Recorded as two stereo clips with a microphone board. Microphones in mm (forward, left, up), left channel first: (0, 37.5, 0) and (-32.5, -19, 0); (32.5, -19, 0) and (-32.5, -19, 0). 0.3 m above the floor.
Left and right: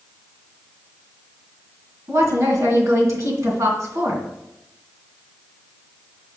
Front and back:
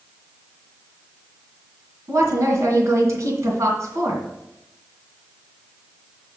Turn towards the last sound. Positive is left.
turn(degrees=-145)